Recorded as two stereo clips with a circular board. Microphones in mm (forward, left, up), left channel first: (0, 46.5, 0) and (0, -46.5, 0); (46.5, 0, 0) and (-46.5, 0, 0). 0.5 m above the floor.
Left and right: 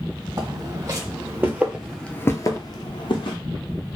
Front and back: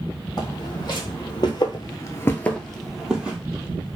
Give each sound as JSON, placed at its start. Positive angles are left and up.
{"t": 0.4, "sound": "footsteps", "azimuth_deg": -40, "distance_m": 1.5}